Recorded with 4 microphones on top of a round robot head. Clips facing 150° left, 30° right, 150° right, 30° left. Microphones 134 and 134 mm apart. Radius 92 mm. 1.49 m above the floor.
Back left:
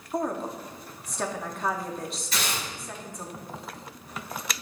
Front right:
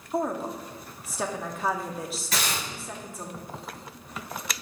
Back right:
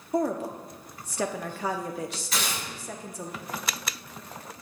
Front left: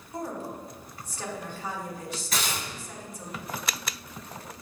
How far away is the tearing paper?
About 3 m.